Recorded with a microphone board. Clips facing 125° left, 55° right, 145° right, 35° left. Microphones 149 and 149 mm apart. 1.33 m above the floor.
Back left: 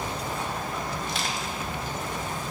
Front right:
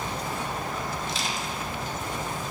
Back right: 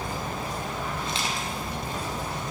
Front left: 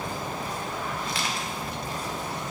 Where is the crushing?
150° left, 2 m.